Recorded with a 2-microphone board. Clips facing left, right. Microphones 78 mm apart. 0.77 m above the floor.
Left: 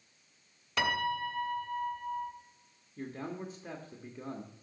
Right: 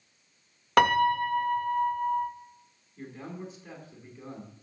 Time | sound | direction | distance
0.8 | a piano | 55° right (ahead or behind) | 0.7 m
3.0 | a man speaking | 45° left (ahead or behind) | 1.5 m